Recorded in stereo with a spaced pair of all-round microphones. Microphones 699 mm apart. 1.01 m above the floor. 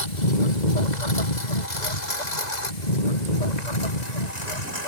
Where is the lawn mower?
85° left; by 4.9 s 70° left (ahead or behind).